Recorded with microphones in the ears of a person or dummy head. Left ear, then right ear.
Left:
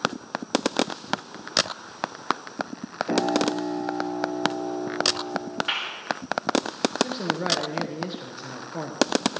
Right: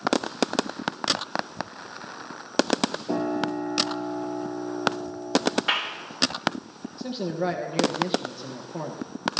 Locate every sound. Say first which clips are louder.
3.1 s a piano: left 8 dB; 65° left (ahead or behind), 6 m
5.7 s a clap: even; 5° right (ahead or behind), 3 m
7.0 s a man speaking: left 4 dB; 5° right (ahead or behind), 1.5 m